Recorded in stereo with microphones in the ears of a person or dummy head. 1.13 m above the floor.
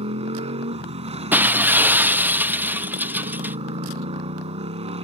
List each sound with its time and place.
0.0 s a motorcycle: 30° right (ahead or behind)
1.3 s breaking glass: 10° right (ahead or behind)